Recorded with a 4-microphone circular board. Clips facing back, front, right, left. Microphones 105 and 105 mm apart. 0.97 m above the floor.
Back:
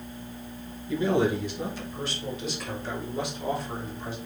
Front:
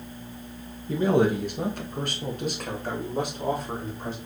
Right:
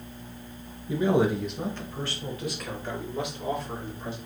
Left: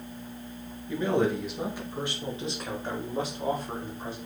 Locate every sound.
0.9 s a man speaking: 30° right, 0.8 m; by 4.2 s 45° left, 2.0 m